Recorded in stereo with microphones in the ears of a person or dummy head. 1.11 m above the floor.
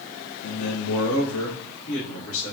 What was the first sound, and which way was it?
A man speaking, 75° left (ahead or behind).